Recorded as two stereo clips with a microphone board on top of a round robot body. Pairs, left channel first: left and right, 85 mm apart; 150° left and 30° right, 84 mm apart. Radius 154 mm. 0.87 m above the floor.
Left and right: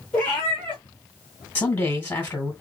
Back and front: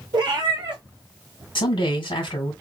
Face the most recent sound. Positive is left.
turn(degrees=155)